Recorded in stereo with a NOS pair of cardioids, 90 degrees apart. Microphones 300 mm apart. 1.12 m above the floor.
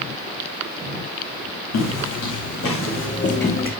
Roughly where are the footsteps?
Ahead left.